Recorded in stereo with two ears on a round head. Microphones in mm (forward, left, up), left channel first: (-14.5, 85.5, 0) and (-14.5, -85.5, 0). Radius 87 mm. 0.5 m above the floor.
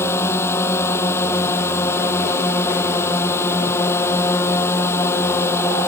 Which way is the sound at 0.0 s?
15° left (ahead or behind).